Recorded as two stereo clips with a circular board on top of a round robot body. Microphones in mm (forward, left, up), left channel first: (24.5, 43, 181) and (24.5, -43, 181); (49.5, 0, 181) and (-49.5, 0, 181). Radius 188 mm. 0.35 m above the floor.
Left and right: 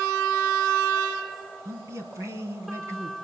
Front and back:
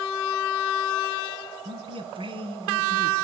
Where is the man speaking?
145° right, 4.5 m.